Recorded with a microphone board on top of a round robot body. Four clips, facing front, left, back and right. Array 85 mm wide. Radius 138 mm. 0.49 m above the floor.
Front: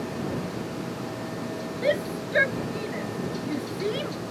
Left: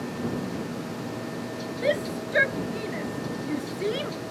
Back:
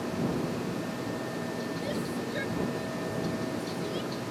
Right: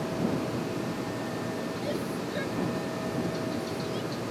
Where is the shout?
40° left; by 4.1 s 50° left.